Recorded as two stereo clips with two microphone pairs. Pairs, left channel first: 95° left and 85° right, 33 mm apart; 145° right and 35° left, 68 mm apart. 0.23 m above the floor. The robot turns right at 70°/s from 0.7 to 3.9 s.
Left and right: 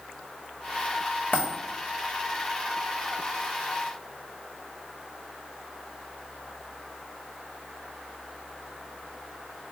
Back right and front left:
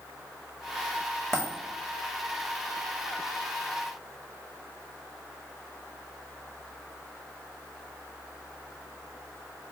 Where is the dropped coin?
130° left, 2 m; by 1.6 s 145° left, 2 m.